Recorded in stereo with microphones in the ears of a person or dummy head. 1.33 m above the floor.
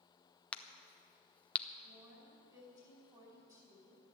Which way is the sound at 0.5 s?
5° left (ahead or behind).